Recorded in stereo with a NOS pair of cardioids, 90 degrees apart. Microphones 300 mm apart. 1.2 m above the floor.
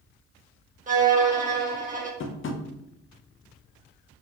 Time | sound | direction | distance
0.9 | a violin | 25° right | 1.2 m
2.2 | tapping | 40° left | 0.7 m